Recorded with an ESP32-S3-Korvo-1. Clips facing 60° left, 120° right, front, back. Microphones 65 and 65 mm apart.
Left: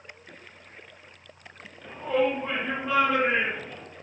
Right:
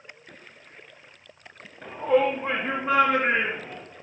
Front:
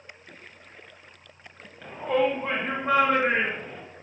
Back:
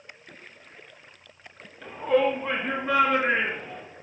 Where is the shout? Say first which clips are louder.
Right 4 dB, back 2 dB; 75° right, 1.7 m; by 3.8 s 45° right, 3.5 m.